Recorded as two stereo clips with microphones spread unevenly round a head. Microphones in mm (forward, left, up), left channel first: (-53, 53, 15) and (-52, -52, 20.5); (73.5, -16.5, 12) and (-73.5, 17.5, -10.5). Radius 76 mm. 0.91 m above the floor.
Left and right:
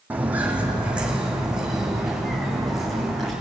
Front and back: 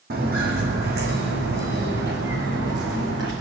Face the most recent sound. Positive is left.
turn(degrees=180)